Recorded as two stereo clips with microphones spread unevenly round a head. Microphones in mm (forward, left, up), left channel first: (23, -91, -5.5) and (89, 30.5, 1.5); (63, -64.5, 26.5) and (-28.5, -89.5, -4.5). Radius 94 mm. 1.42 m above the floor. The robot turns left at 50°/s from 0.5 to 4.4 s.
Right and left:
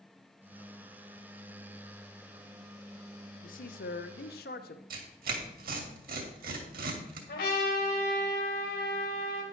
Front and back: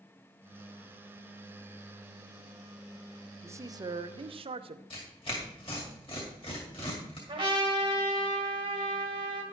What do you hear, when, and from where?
3.4 s a man speaking: 100° right, 0.9 m; by 4.8 s 150° right, 0.9 m
4.9 s tearing paper: 65° left, 2 m
7.3 s a trumpet: 135° right, 4 m